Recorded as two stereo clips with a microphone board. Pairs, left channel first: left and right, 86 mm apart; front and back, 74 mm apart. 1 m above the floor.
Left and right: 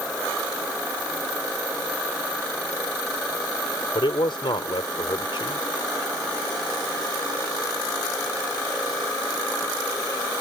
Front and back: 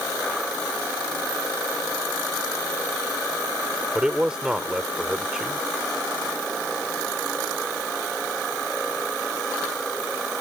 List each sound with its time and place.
4.0 s a man speaking: 105° left